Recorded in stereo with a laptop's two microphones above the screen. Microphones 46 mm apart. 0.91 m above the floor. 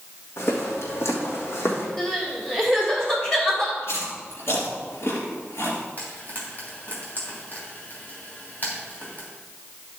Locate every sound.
0.4 s footsteps: 75° left (ahead or behind), 3 m; by 1.9 s 70° left (ahead or behind), 3 m
2.0 s crying: 15° left (ahead or behind), 1.8 m
3.8 s chewing: 80° left, 3 m
6.0 s frying: 40° left (ahead or behind), 3 m